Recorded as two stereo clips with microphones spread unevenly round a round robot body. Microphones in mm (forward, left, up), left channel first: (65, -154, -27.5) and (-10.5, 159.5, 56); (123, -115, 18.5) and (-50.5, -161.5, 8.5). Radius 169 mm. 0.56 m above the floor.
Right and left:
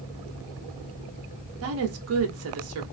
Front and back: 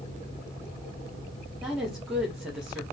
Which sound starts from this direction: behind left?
A woman speaking, at 1.6 s.